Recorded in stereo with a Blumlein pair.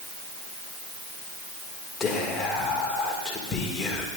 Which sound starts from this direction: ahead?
Whispering, at 2.0 s.